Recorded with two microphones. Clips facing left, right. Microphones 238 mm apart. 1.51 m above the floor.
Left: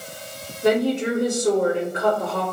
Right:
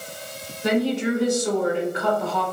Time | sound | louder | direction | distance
0.6 | a woman speaking | left 2 dB | 55° left (ahead or behind) | 1.9 m